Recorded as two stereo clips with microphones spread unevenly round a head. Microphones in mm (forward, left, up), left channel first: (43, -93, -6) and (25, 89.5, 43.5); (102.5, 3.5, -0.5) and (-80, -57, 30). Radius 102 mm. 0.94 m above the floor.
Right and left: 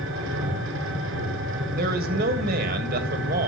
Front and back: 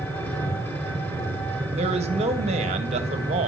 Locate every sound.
0.0 s an engine running: 100° left, 4.5 m
1.7 s a man speaking: 140° left, 1.6 m